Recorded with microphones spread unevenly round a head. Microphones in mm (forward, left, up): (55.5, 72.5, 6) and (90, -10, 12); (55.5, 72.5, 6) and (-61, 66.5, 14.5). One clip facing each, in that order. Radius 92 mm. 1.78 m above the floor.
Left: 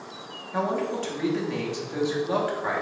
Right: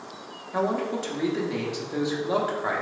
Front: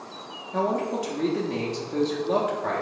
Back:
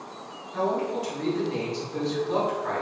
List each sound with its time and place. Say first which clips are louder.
0.5 s a man speaking: right 1 dB, front 1 dB; 10° left, 0.9 m